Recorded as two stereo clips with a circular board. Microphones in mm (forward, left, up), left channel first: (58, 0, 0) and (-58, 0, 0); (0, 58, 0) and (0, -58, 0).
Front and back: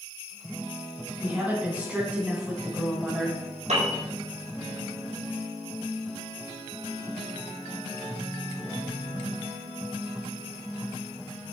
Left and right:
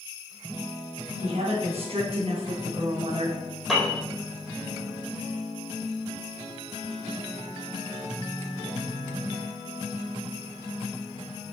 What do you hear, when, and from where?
1.2 s a woman speaking: 105° right, 3.5 m; by 3.4 s 95° right, 2 m
3.7 s a piano: straight behind, 4.5 m